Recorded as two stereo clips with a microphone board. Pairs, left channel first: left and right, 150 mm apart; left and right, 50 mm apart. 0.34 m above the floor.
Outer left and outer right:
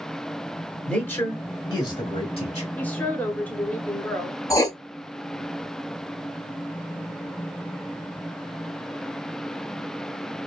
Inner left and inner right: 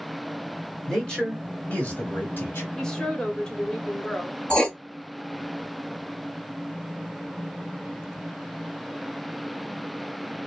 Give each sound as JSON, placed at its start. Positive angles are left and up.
{"t": 0.9, "sound": "a man speaking", "side_deg": 5, "distance_m": 1.1}
{"t": 2.8, "sound": "a woman speaking", "side_deg": 10, "distance_m": 0.9}
{"t": 4.5, "sound": "writing", "side_deg": 20, "distance_m": 0.5}